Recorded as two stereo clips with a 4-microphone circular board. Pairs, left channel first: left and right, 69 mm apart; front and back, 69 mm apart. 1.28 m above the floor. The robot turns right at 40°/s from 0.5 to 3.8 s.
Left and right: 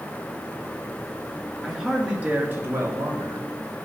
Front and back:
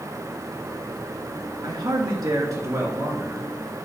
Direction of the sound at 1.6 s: 170° left.